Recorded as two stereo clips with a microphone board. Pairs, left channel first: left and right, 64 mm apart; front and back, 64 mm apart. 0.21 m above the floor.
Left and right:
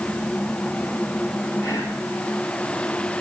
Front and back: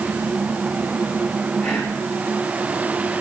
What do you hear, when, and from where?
1.6 s whispering: 90° left, 1.8 m